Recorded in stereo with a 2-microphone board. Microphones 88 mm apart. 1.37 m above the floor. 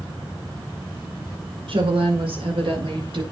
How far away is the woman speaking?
About 5 m.